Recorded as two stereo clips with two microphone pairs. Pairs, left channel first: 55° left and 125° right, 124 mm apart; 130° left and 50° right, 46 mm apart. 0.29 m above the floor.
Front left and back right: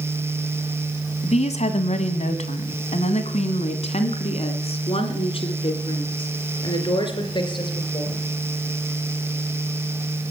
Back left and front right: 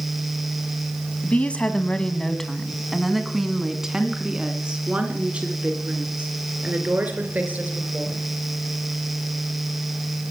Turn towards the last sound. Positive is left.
turn(degrees=0)